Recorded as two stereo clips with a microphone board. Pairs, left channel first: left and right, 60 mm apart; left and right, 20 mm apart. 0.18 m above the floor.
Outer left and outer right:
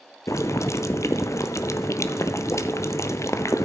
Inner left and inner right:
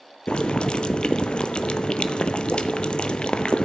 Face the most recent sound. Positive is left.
turn(degrees=55)  # may be behind; listen again after turning